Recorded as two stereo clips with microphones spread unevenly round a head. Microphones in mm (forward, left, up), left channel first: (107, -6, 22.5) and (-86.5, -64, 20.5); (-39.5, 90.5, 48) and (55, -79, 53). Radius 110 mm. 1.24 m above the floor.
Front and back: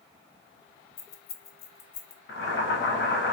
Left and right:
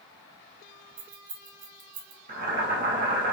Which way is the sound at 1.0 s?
10° right.